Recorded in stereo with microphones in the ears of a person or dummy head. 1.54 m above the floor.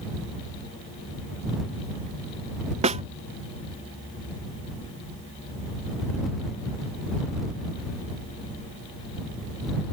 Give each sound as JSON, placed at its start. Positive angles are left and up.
{"t": 2.8, "sound": "a snare drum", "side_deg": -30}